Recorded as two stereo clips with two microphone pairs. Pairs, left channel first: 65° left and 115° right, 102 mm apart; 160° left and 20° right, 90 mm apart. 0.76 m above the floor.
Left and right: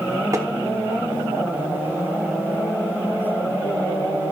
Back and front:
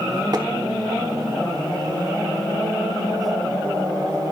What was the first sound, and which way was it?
Tapping, 60° right.